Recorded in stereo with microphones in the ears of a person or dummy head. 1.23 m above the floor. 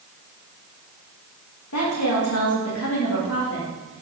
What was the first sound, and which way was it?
A woman speaking, 75° left (ahead or behind).